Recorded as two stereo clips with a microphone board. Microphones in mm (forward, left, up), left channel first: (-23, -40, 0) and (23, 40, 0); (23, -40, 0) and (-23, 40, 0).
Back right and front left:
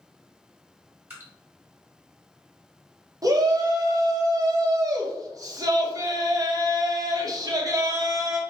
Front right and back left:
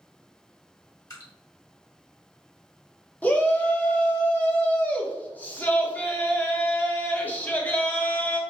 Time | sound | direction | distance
1.1 | dripping | 5° right | 1.3 m
3.2 | a shout | 10° left | 0.8 m